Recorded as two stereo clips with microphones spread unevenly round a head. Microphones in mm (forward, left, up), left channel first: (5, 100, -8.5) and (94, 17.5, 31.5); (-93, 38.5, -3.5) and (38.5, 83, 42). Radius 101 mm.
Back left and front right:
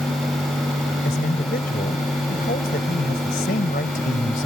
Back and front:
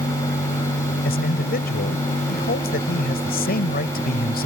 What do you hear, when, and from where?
1.1 s a man speaking: 175° right